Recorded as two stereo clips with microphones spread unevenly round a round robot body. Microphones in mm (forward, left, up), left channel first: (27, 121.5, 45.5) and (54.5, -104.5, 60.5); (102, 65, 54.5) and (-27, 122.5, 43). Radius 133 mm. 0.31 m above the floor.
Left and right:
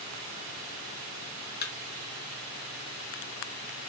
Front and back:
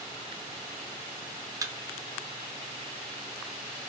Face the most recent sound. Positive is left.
turn(degrees=105)